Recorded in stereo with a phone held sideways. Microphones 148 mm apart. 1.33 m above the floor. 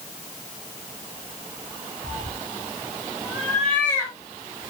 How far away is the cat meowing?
About 1.5 m.